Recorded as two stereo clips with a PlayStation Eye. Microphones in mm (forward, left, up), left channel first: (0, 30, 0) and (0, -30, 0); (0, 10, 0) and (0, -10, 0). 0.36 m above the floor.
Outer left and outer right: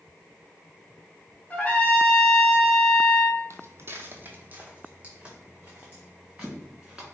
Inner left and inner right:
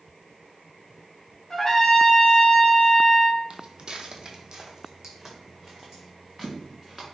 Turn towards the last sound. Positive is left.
turn(degrees=-10)  # may be behind; listen again after turning